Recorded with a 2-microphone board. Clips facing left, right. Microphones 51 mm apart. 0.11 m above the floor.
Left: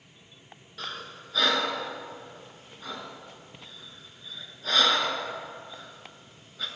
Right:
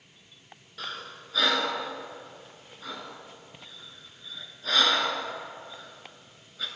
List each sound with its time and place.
0.8 s breathing: centre (ahead or behind), 0.7 m